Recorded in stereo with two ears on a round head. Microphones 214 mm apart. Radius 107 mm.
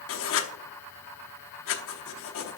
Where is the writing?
55° left (ahead or behind), 0.8 m.